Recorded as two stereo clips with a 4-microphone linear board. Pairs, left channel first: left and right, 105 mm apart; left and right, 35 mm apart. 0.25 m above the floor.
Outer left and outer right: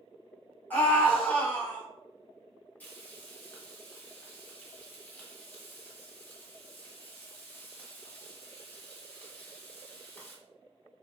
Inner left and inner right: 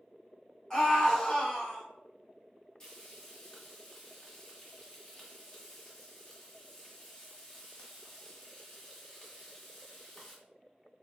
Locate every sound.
0.7 s a scream: 15° left (ahead or behind), 1.5 m
2.8 s frying: 20° left (ahead or behind), 1.2 m